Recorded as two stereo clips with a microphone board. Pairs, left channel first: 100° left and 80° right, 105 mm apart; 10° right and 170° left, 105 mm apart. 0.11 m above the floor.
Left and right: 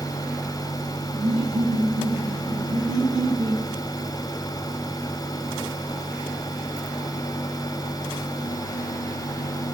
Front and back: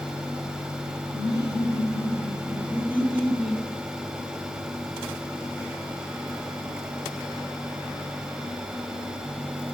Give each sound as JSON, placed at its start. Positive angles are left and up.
{"t": 1.1, "sound": "laughter", "azimuth_deg": -55, "distance_m": 4.0}